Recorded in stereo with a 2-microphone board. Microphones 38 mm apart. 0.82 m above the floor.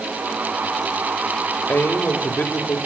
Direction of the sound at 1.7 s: 60° left (ahead or behind).